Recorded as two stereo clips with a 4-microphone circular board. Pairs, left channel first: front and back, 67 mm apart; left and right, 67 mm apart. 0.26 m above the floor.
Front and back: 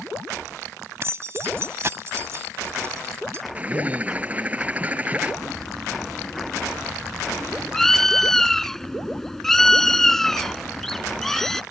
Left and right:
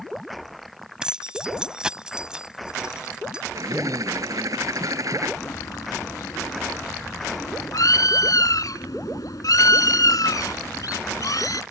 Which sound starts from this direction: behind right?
A bird, at 3.5 s.